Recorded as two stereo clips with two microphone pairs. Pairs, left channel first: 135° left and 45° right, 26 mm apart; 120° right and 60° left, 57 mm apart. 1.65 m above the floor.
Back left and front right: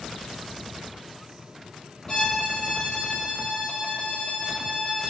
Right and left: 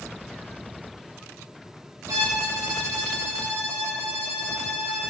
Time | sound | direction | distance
2.1 | a violin | 65° left | 1.5 m